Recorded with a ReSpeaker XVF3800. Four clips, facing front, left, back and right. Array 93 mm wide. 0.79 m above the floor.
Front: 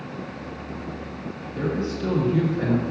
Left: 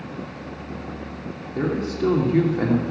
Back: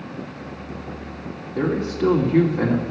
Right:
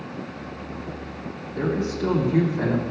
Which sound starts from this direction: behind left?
A man speaking, at 1.6 s.